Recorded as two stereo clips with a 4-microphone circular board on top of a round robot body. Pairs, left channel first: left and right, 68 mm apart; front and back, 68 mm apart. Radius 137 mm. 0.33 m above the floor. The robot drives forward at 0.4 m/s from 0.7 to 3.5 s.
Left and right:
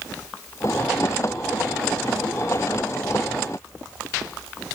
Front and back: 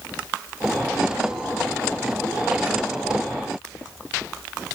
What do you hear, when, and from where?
Only background noise.